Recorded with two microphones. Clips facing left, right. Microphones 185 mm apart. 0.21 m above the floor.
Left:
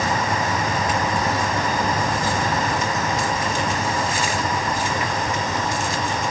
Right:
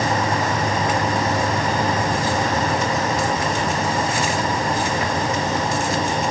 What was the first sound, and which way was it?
Only background noise.